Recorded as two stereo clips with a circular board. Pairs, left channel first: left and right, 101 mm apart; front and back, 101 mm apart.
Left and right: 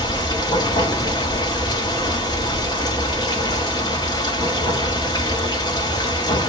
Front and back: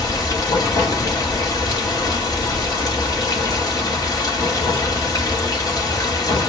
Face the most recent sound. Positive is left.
turn(degrees=45)